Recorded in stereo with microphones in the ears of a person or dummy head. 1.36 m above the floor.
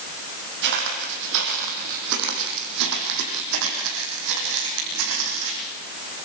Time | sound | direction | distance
0.6 | footsteps | 55° right (ahead or behind) | 3 m